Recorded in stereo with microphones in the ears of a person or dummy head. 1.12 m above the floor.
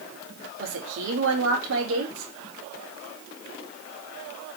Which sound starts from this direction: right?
A woman speaking, at 0.6 s.